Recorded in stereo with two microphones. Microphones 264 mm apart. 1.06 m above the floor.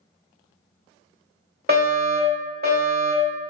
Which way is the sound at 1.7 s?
35° right (ahead or behind).